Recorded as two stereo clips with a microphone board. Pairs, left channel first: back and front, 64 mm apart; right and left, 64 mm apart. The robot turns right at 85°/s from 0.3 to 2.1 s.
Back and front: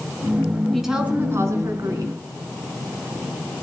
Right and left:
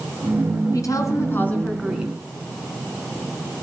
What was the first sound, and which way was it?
A woman speaking, 95° right.